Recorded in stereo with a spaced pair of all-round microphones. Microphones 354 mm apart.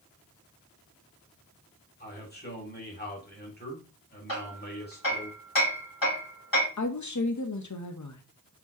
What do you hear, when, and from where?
2.0 s a man speaking: 25° left (ahead or behind), 1.9 m
4.3 s hammering: 70° left (ahead or behind), 3 m
6.8 s a woman speaking: 55° left (ahead or behind), 0.6 m